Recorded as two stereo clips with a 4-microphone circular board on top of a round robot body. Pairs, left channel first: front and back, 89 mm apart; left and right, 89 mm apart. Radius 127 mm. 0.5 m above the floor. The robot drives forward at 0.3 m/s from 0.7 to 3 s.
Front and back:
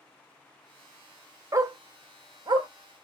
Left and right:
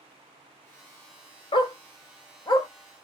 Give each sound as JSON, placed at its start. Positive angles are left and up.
{"t": 1.5, "sound": "a dog barking", "azimuth_deg": 125, "distance_m": 0.8}